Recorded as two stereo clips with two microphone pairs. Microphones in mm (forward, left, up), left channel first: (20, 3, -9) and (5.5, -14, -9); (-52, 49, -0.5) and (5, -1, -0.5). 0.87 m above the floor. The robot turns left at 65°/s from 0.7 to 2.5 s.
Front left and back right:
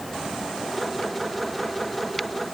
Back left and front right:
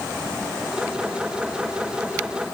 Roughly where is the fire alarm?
I don't hear a fire alarm.